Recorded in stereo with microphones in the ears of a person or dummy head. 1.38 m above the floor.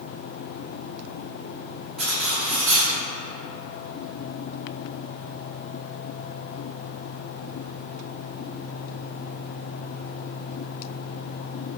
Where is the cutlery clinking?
5° left (ahead or behind), 1.1 m.